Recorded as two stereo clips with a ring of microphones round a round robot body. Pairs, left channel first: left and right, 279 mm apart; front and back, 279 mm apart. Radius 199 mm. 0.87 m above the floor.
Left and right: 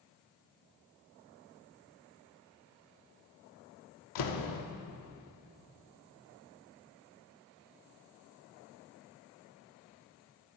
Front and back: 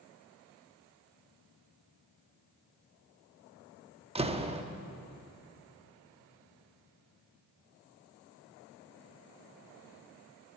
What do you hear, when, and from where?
4.2 s a door slam: 110° left, 1.0 m